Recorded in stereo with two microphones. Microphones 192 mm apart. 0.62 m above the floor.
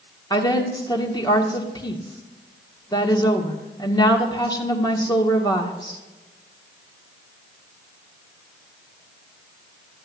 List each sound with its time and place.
0.3 s a woman speaking: 20° left (ahead or behind), 1.6 m